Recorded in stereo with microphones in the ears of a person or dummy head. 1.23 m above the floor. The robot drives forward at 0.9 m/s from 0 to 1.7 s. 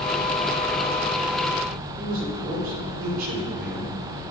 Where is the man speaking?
55° right (ahead or behind), 3 m.